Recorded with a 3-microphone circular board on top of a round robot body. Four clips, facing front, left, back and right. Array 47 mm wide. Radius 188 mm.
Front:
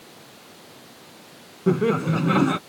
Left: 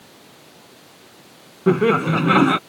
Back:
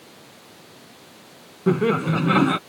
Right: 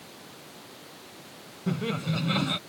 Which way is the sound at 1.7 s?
95° left.